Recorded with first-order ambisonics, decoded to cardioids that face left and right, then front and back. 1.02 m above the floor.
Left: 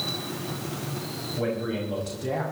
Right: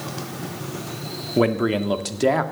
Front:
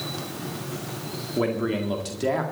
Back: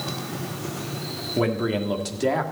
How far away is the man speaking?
About 1.7 m.